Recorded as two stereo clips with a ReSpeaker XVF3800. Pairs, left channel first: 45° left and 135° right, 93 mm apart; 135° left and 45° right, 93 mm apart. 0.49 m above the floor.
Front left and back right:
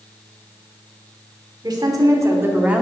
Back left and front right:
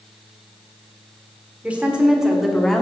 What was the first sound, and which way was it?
A woman speaking, 115° right.